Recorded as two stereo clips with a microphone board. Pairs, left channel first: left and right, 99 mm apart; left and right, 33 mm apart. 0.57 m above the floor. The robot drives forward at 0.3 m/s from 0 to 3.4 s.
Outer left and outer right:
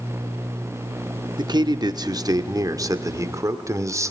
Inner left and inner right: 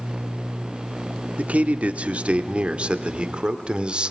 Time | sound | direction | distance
1.4 | a man speaking | 45° right (ahead or behind) | 0.9 m